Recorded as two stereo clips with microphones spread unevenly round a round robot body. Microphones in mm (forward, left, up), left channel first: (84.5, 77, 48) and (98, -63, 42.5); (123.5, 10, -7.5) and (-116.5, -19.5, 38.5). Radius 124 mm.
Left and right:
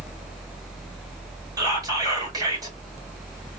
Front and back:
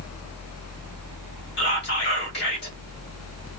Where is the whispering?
25° right, 2.5 m.